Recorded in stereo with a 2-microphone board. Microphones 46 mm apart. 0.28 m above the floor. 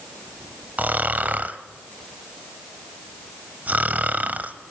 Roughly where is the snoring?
Right.